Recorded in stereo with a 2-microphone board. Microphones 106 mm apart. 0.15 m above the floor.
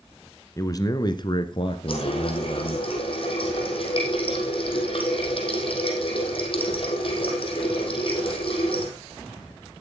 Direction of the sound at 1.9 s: 55° left (ahead or behind).